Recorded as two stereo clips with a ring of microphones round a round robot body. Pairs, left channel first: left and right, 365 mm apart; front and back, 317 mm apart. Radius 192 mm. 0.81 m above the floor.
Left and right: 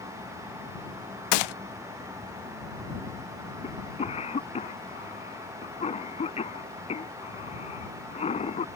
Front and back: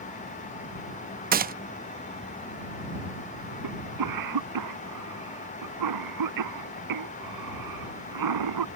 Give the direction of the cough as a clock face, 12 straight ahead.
7 o'clock.